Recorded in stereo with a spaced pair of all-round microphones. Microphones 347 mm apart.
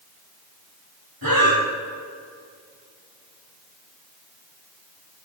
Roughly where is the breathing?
Right.